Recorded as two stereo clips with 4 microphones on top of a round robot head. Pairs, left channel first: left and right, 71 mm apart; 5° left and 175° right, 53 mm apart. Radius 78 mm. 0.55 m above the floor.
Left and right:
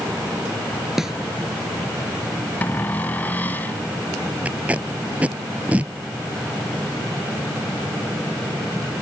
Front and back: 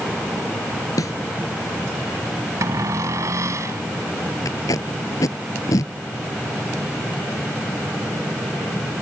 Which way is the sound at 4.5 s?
20° right.